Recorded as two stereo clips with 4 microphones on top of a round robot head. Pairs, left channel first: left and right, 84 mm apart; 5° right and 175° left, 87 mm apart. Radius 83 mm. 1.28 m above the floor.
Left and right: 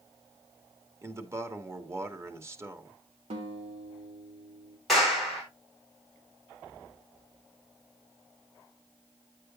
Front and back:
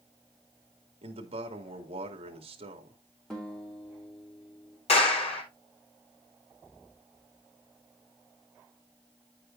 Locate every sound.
1.0 s a man speaking: 150° right, 2.5 m
3.3 s a guitar: 90° right, 2.5 m
4.9 s a clap: straight ahead, 4 m